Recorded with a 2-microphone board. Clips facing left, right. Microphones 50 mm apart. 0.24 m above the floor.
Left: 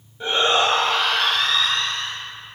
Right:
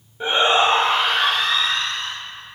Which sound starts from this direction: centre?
A shout, at 0.2 s.